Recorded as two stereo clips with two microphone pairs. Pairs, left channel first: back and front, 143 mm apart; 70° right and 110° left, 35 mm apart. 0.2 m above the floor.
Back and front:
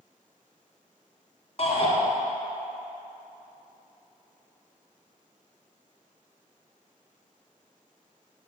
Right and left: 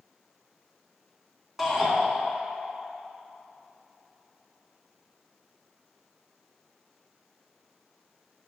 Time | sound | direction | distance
1.6 | a shout | 175° right | 2.0 m